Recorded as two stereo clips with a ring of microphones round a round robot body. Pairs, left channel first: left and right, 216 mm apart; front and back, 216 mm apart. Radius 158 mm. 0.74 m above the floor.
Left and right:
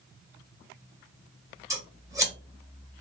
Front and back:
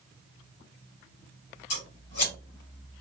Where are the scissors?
15° right, 1.8 m.